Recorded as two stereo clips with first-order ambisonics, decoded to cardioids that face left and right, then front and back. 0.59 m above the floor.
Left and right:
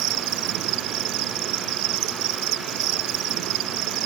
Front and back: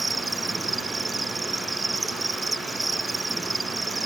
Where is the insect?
100° right.